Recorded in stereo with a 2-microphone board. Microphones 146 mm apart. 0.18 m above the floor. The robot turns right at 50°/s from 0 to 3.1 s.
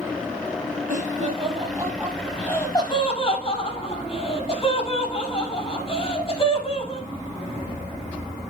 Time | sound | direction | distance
0.9 | laughter | 65° right (ahead or behind) | 6.5 m